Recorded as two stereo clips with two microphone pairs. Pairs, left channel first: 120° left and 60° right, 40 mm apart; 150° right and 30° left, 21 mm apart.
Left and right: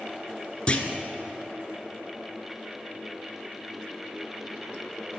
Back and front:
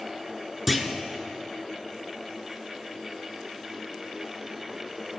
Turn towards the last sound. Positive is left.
turn(degrees=115)